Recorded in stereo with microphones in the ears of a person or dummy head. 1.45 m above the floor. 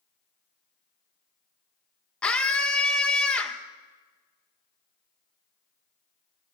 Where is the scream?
10° left (ahead or behind), 1.3 m.